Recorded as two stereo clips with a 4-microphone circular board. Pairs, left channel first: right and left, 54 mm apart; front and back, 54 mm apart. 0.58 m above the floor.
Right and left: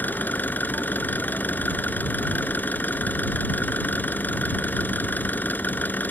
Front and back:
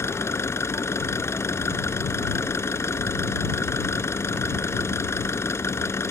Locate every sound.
0.0 s an engine running: 35° right